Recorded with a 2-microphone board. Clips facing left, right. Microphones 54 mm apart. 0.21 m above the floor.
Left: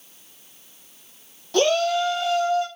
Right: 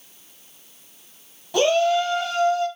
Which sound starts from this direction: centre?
A shout, at 1.5 s.